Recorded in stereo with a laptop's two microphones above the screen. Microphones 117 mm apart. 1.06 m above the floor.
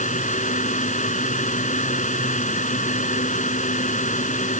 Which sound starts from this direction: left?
A fan, at 0.0 s.